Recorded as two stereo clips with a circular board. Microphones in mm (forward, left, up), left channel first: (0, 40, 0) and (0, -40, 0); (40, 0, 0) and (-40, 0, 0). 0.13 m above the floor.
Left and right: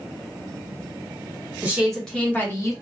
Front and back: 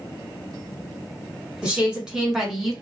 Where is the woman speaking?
130° right, 1.1 m; by 2.7 s 95° left, 1.3 m.